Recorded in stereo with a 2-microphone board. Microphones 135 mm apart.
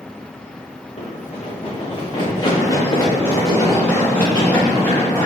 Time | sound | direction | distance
1.0 | running footsteps | 50° left (ahead or behind) | 1.5 m